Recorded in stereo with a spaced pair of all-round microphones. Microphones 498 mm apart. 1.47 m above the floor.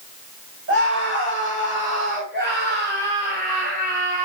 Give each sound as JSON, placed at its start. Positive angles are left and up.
{"t": 0.7, "sound": "a scream", "side_deg": -25, "distance_m": 9.0}